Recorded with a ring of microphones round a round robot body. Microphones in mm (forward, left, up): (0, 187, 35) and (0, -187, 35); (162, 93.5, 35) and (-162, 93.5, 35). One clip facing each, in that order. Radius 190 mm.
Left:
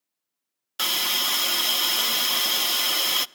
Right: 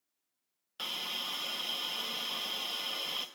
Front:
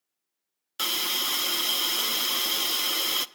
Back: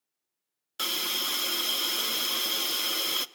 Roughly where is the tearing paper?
I don't hear tearing paper.